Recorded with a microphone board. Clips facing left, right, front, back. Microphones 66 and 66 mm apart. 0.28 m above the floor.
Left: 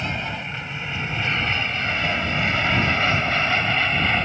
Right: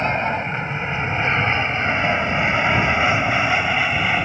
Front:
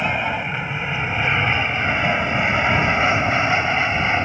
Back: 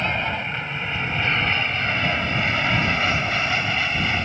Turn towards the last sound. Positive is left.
turn(degrees=-20)